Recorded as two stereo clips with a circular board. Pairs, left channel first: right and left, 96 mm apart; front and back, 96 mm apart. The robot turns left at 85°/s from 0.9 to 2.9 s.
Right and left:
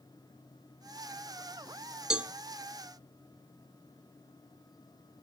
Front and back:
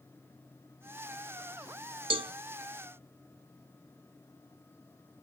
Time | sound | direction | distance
2.1 | a cowbell | 175° left | 0.5 m